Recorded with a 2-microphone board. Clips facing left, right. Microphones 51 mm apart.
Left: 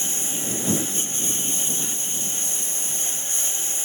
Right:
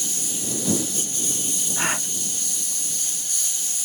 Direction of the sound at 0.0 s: 30° left (ahead or behind).